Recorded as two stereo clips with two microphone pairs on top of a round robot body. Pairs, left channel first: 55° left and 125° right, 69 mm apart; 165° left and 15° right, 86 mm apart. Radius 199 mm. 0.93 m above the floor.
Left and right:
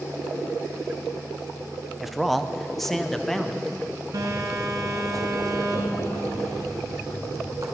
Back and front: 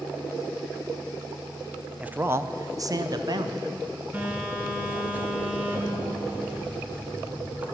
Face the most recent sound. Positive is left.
turn(degrees=-90)